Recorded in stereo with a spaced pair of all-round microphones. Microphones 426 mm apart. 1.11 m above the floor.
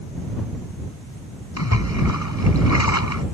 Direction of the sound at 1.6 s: 40° left (ahead or behind).